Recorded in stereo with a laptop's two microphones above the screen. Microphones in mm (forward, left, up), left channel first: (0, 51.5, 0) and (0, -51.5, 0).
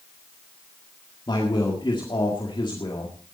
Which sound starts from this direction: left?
A man speaking, at 1.3 s.